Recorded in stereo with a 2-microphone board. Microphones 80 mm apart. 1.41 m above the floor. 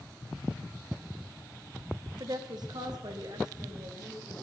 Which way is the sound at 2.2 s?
60° right (ahead or behind).